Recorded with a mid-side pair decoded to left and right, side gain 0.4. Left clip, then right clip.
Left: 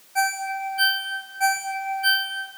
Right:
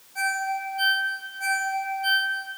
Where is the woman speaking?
No woman speaking in this recording.